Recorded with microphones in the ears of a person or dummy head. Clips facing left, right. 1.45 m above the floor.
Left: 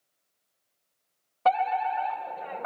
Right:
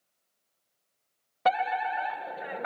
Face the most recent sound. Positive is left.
turn(degrees=-20)  # may be behind; listen again after turning